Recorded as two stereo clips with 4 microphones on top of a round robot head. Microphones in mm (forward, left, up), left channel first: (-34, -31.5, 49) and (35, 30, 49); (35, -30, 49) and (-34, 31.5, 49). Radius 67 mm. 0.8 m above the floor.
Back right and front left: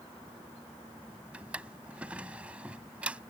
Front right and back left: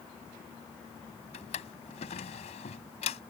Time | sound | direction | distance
1.3 | a drawer | 35° right | ?